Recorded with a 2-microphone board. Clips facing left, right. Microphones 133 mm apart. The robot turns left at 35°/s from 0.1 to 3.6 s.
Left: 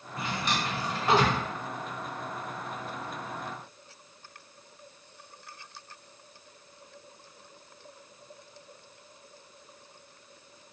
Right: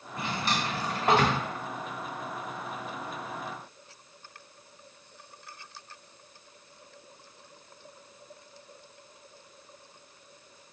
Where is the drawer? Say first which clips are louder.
Right 1 dB; 25° right (ahead or behind), 1.7 m; by 1.4 s 60° right (ahead or behind), 1.7 m.